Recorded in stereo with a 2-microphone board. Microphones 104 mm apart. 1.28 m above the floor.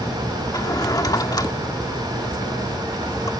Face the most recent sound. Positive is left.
turn(degrees=40)  # may be behind; listen again after turning